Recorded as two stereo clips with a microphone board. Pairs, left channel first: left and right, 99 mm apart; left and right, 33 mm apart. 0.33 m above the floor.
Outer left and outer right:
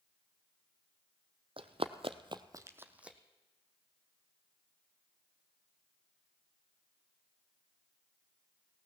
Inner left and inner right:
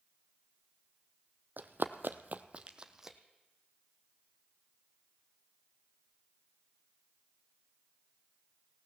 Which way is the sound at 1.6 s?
65° right (ahead or behind).